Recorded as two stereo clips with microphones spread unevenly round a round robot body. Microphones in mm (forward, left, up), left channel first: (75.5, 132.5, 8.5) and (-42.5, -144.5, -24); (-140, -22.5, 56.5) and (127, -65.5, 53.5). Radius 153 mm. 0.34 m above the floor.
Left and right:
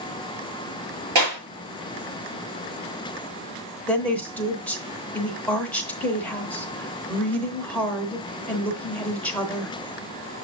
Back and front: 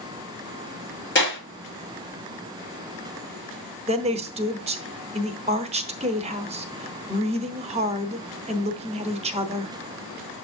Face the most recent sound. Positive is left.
turn(degrees=-25)